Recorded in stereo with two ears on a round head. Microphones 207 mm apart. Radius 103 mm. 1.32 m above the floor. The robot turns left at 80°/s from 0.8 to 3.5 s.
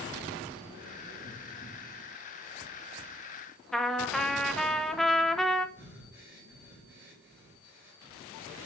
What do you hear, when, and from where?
3.7 s a trumpet: centre (ahead or behind), 0.5 m
5.8 s breathing: 10° right (ahead or behind), 2.5 m